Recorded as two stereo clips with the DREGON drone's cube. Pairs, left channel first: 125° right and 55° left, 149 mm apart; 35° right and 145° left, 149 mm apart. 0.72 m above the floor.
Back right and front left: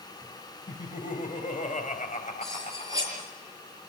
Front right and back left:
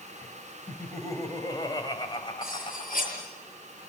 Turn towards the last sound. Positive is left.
turn(degrees=-10)